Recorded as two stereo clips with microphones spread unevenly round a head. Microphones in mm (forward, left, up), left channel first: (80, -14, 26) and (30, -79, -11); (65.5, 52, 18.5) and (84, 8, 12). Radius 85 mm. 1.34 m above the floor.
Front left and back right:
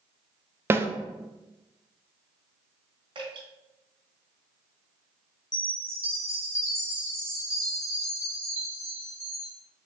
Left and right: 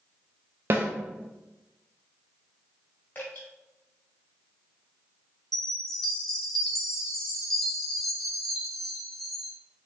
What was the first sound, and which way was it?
A snare drum, 90° right.